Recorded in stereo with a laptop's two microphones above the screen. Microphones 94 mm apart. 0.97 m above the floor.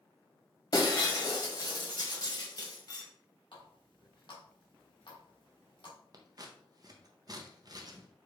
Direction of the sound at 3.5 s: 60° left (ahead or behind).